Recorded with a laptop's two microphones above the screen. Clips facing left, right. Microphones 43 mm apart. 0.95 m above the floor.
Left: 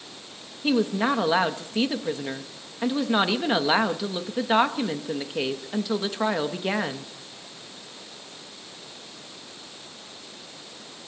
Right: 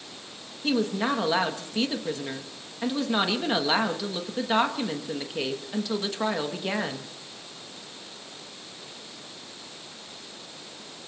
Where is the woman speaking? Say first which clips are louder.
Left 3 dB; 15° left (ahead or behind), 0.8 m.